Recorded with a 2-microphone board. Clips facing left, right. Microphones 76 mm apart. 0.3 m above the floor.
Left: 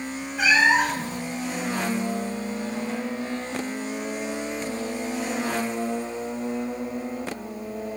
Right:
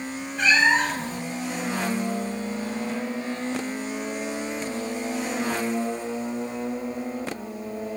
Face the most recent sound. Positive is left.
turn(degrees=5)  # may be behind; listen again after turning